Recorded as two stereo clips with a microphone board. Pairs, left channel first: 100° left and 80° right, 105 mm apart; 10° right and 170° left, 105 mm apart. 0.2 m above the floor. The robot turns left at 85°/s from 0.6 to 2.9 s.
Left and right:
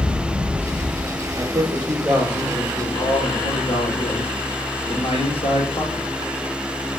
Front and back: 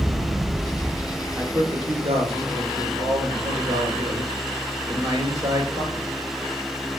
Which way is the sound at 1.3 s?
110° right.